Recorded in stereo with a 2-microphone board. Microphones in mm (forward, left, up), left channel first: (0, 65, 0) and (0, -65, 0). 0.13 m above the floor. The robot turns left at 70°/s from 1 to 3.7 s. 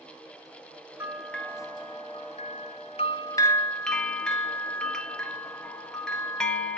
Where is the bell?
165° right, 0.9 m; by 6.8 s 5° left, 0.9 m.